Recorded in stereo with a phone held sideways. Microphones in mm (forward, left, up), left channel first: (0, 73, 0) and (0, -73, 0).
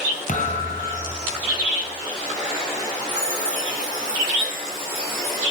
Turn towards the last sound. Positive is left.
turn(degrees=70)  # may be behind; listen again after turning